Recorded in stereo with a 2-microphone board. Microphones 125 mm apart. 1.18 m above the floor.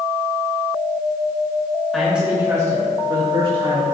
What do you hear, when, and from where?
1.9 s a man speaking: centre (ahead or behind), 2 m; by 3.8 s 55° right (ahead or behind), 3 m